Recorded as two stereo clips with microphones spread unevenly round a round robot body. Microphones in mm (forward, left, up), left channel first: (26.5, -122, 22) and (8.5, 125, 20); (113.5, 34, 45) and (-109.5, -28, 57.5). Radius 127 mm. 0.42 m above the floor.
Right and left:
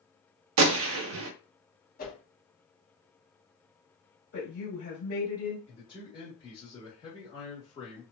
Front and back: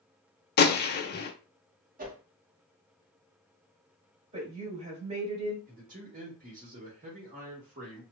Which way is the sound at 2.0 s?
125° right.